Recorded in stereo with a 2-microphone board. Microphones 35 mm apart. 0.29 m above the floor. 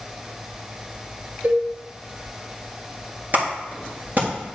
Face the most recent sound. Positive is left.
turn(degrees=-50)  # may be behind; listen again after turning